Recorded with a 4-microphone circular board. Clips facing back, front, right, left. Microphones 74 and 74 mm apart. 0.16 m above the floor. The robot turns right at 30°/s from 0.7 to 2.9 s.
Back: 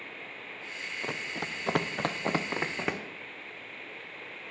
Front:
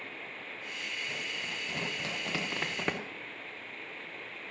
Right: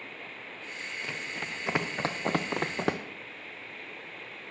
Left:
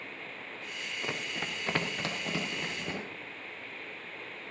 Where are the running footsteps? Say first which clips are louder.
Back 7 dB, left 2 dB; 155° left, 1.5 m; by 3.0 s 90° right, 1.3 m.